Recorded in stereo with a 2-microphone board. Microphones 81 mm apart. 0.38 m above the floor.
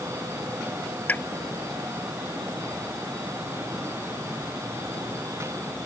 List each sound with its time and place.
1.1 s a pop: 20° left (ahead or behind)